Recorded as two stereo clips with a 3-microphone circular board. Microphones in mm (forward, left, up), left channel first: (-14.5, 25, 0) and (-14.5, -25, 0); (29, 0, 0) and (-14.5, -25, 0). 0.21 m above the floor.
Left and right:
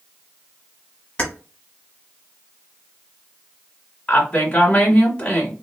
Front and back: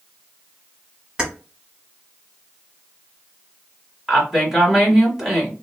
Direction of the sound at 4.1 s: 140° left.